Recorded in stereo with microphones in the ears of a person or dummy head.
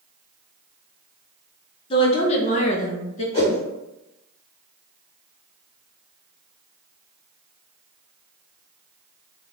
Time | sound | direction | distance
1.9 | a woman speaking | 30° left (ahead or behind) | 0.7 m
3.3 | a whoosh | 30° left (ahead or behind) | 1.2 m